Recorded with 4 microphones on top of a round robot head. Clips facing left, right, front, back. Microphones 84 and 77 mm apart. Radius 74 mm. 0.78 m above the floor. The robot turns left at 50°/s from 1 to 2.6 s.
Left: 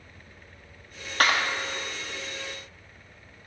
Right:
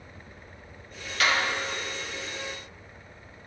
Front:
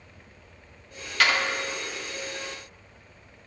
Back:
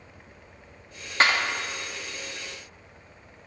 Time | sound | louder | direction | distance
1.2 | a clap | left 2 dB, back 1 dB | 125° left | 1.5 m